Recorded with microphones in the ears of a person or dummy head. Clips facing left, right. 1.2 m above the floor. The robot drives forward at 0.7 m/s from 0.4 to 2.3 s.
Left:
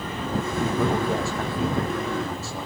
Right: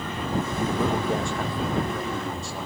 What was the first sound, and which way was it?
A man speaking, centre (ahead or behind).